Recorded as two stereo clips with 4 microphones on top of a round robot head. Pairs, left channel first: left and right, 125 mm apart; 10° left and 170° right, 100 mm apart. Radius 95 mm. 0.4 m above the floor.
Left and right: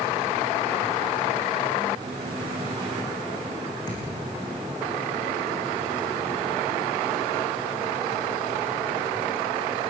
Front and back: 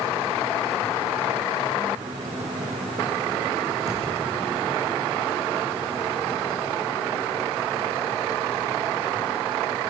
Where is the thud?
30° left, 6.5 m.